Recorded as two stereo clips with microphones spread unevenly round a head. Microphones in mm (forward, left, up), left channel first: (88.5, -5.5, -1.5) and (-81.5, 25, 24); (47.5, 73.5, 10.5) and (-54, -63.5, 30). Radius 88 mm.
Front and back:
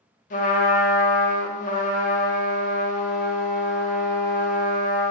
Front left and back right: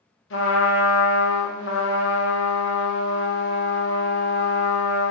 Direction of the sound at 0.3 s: 35° left.